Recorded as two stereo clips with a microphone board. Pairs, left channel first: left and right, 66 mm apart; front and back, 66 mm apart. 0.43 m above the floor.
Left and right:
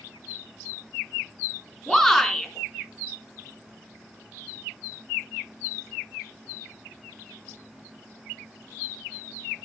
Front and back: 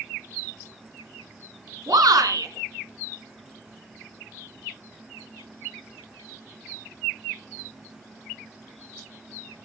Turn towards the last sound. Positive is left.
turn(degrees=175)